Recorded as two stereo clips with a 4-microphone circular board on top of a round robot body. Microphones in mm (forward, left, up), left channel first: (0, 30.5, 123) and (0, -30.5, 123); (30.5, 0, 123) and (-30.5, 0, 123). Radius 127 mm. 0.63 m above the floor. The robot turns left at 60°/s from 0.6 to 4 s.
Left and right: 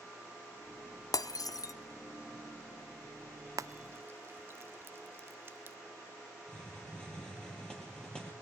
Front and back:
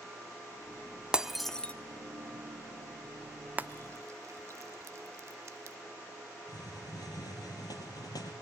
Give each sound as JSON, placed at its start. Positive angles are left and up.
{"t": 1.1, "sound": "breaking glass", "azimuth_deg": 105, "distance_m": 1.0}
{"t": 3.6, "sound": "frying", "azimuth_deg": -115, "distance_m": 0.7}
{"t": 6.5, "sound": "a hiss", "azimuth_deg": 15, "distance_m": 5.0}